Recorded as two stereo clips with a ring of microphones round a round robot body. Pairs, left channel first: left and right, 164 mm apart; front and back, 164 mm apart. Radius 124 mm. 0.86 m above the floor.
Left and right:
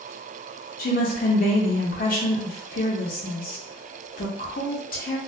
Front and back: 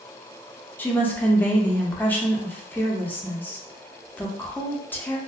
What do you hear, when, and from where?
0.8 s a woman speaking: 80° left, 0.7 m